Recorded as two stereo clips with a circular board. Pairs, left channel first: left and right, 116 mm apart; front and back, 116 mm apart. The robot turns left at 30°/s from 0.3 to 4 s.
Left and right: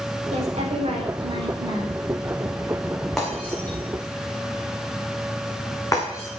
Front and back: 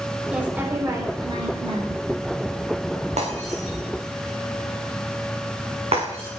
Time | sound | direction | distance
0.3 | a woman speaking | 100° right | 4 m
3.2 | breaking glass | 175° left | 4 m